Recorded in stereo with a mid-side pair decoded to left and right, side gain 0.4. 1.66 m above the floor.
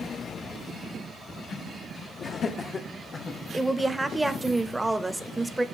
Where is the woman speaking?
15° right, 0.8 m.